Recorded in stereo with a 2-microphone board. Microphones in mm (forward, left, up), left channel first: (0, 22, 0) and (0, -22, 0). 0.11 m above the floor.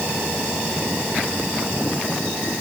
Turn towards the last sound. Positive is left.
No sound to turn to.